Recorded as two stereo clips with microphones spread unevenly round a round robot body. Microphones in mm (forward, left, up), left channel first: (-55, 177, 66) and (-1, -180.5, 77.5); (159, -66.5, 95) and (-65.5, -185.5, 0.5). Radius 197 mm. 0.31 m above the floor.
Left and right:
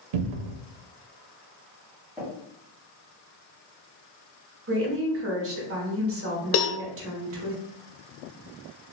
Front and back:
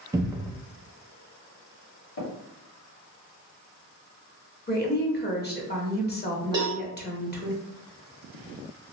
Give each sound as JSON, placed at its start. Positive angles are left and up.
{"t": 0.1, "sound": "a cupboard door", "azimuth_deg": -80, "distance_m": 0.5}
{"t": 2.2, "sound": "tapping", "azimuth_deg": 5, "distance_m": 1.8}
{"t": 4.7, "sound": "a woman speaking", "azimuth_deg": -40, "distance_m": 1.2}
{"t": 6.5, "sound": "a cowbell", "azimuth_deg": 145, "distance_m": 0.5}